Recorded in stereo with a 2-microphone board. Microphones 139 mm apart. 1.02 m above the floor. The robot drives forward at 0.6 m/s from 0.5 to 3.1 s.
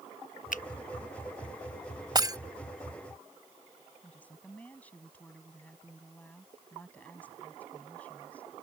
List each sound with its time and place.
0.5 s a finger snap: 70° left (ahead or behind); by 0.6 s 65° left (ahead or behind)
2.1 s breaking glass: 30° right (ahead or behind); by 2.4 s 25° right (ahead or behind)
4.0 s a woman speaking: 10° left (ahead or behind)